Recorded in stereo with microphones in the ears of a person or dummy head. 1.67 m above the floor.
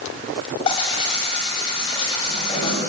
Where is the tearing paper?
30° left (ahead or behind), 9 m.